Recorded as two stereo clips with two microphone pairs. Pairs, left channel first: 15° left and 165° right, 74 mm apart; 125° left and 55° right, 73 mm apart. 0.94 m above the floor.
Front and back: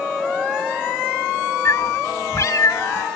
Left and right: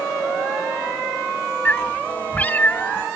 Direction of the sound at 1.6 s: 55° left.